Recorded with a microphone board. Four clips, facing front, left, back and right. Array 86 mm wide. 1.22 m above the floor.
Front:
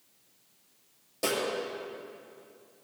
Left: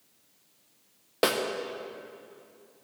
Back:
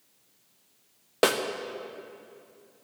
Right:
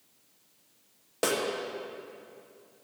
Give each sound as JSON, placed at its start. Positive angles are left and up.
{"t": 1.2, "sound": "a snare drum", "azimuth_deg": 165, "distance_m": 0.7}